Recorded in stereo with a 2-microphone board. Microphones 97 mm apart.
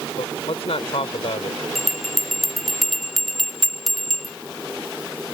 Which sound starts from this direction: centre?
A bell, at 1.8 s.